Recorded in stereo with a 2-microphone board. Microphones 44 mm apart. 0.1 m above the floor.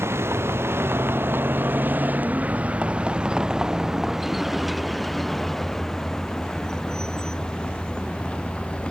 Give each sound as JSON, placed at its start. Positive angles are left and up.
{"t": 0.0, "sound": "a vehicle", "side_deg": -75}